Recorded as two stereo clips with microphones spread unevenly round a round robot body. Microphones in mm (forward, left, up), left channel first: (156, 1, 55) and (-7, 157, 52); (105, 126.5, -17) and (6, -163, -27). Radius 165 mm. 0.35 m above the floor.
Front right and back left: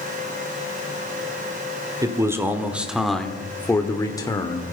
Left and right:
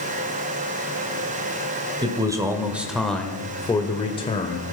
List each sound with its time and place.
2.0 s a man speaking: 165° right, 1.6 m; by 4.6 s 15° left, 1.7 m